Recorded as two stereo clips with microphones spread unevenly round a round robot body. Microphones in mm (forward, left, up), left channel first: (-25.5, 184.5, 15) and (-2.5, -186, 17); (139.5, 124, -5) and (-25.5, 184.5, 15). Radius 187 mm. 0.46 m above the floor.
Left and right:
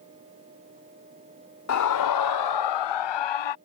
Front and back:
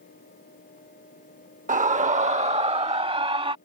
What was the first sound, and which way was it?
A scream, 125° left.